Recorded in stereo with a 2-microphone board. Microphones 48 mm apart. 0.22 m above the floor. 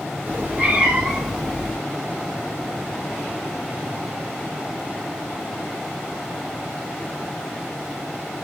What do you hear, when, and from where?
0.3 s a cat meowing: 45° right (ahead or behind), 1.2 m; by 1.8 s 15° left (ahead or behind), 1.1 m